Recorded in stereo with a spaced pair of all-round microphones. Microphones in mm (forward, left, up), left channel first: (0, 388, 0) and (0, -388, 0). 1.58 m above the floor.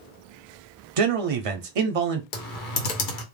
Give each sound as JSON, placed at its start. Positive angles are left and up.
{"t": 1.0, "sound": "a man speaking", "side_deg": -50, "distance_m": 0.5}
{"t": 2.3, "sound": "typing on a keyboard", "side_deg": 75, "distance_m": 0.9}